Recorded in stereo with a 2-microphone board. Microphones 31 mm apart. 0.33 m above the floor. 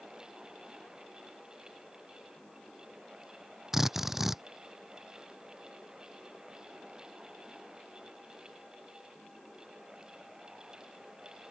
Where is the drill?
10° right (ahead or behind).